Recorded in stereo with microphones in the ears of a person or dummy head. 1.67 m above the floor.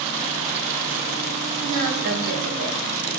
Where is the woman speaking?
65° right (ahead or behind), 2.5 m.